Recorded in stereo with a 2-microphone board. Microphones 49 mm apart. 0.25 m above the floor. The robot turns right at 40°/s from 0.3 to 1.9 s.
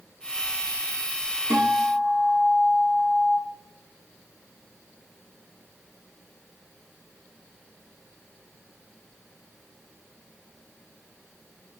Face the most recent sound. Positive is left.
turn(degrees=-55)  # may be behind; listen again after turning